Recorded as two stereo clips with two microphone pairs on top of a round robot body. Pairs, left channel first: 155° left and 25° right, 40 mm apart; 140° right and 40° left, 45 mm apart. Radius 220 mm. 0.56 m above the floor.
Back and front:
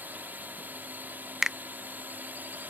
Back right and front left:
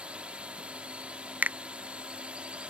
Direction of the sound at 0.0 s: 20° right.